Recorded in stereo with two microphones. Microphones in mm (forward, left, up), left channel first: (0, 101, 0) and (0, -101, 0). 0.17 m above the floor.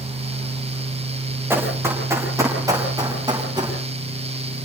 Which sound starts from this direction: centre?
Running footsteps, at 1.5 s.